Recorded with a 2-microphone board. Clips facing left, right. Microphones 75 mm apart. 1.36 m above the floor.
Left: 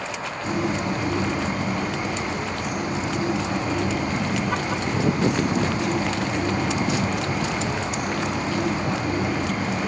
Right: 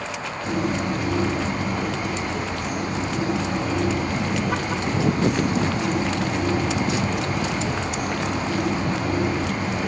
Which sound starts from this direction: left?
A bird, at 0.4 s.